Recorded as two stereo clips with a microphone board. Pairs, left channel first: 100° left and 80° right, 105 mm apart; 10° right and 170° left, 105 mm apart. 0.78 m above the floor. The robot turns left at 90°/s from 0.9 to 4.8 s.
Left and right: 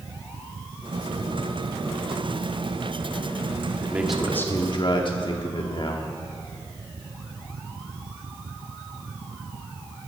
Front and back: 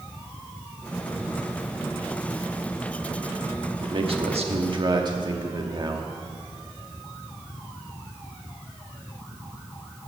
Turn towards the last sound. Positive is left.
turn(degrees=130)